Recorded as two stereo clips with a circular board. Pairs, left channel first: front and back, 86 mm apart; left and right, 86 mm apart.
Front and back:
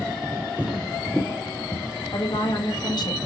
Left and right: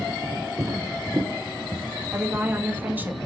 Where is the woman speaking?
25° right, 1.3 m.